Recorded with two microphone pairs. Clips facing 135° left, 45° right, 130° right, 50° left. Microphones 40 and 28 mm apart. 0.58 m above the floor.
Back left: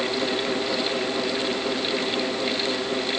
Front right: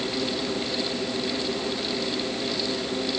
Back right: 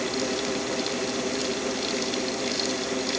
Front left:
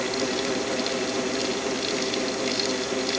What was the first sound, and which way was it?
Only background noise.